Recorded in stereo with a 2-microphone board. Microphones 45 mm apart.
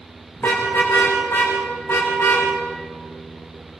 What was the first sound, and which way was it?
A car horn, 55° left (ahead or behind).